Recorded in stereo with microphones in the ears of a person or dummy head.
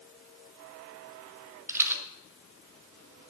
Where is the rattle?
10° right (ahead or behind), 0.8 m.